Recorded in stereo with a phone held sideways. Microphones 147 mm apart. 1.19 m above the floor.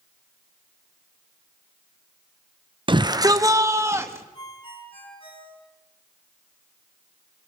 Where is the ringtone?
35° left (ahead or behind), 9.5 m.